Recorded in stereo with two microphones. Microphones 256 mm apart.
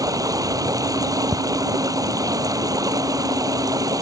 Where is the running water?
15° right (ahead or behind).